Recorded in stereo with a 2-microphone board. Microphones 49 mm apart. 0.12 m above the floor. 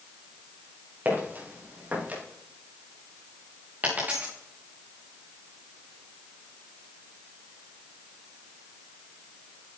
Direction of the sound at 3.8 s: 35° right (ahead or behind).